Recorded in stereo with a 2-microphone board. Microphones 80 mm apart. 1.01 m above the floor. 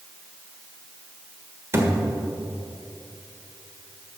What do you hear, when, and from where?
1.7 s a thud: 30° right (ahead or behind), 1.5 m